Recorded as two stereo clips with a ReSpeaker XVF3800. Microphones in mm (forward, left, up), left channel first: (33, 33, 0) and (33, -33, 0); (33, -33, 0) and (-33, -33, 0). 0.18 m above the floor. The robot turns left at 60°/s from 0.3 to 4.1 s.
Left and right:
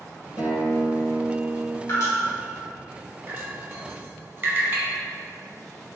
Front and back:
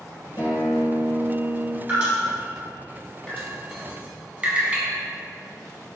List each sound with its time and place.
0.4 s a guitar: 55° left, 0.9 m; by 1.8 s 30° right, 0.9 m
1.9 s dripping: 115° left, 1.6 m; by 2.0 s 105° left, 1.6 m
3.3 s dripping: 70° right, 0.8 m; by 4.9 s 120° right, 0.8 m